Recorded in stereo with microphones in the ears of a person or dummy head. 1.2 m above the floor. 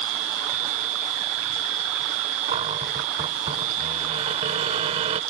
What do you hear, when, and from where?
0.0 s a machine running: 75° right (ahead or behind)
2.5 s a cupboard door: 35° right (ahead or behind)